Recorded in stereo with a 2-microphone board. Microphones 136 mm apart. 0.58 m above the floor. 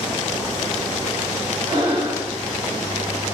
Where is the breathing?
45° right (ahead or behind), 1.4 m.